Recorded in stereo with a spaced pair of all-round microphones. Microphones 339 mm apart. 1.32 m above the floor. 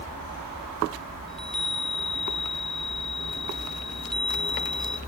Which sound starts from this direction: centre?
A chime, at 1.3 s.